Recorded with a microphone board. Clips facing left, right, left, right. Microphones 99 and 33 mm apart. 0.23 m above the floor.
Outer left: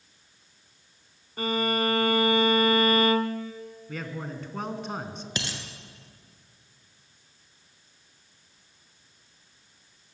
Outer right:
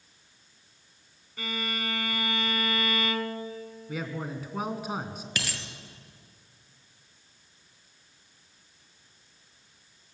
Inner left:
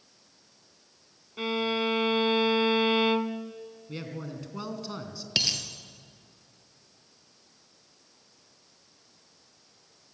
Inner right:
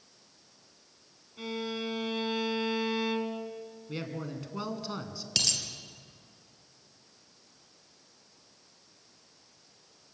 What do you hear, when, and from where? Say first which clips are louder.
1.4 s a violin: outer left 9 dB, inner left 7 dB; 45° left (ahead or behind), 1.1 m
3.9 s a man speaking: outer right 2 dB, inner right 1 dB; 5° right (ahead or behind), 2.5 m
5.4 s a dropped coin: outer left 2 dB, inner left 3 dB; 25° left (ahead or behind), 2 m